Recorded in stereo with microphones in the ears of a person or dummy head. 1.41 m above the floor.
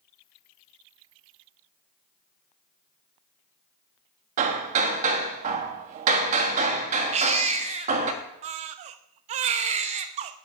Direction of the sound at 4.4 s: 40° right (ahead or behind).